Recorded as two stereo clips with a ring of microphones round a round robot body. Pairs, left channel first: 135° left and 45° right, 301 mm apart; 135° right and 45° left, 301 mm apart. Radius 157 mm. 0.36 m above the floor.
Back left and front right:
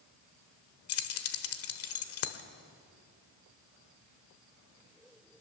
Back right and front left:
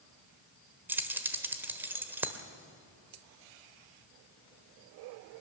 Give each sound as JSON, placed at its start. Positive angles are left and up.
{"t": 0.9, "sound": "keys jangling", "azimuth_deg": 125, "distance_m": 1.2}